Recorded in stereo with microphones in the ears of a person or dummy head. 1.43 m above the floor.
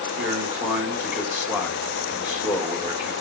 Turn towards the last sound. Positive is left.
turn(degrees=-10)  # may be behind; listen again after turning